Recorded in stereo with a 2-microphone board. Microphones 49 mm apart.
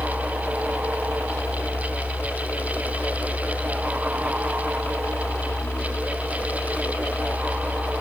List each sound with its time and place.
0.0 s a helicopter: 65° left (ahead or behind); by 8.0 s 50° left (ahead or behind)